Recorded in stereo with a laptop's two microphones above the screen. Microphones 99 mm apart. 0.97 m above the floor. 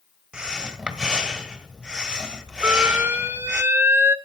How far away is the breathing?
About 1.3 m.